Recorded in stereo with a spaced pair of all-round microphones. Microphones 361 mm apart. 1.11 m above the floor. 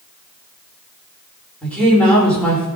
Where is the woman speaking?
5° left (ahead or behind), 4 m.